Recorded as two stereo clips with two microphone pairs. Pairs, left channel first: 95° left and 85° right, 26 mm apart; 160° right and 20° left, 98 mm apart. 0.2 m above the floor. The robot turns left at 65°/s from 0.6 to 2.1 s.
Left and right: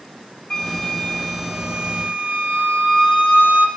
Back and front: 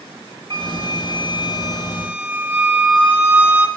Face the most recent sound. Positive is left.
turn(degrees=-55)